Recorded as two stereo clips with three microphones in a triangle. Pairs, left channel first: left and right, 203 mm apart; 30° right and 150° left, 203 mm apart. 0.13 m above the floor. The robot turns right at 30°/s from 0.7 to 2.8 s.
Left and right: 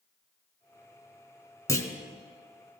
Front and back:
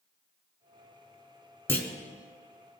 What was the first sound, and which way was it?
A clunk, 35° left.